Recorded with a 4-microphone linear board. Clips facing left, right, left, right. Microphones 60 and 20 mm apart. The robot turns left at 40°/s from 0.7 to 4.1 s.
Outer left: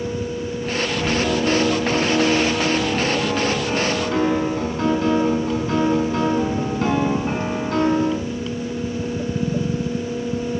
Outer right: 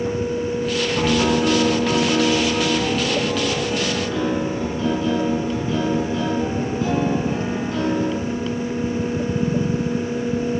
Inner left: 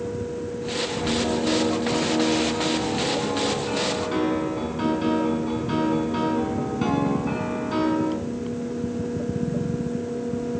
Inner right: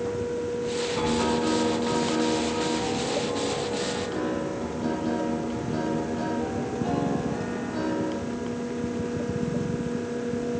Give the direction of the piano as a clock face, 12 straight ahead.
4 o'clock.